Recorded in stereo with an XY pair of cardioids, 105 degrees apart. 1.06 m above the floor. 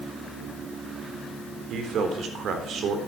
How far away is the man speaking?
About 3.5 m.